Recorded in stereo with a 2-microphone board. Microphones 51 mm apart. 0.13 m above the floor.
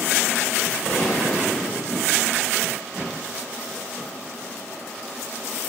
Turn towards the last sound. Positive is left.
turn(degrees=50)  # may be behind; listen again after turning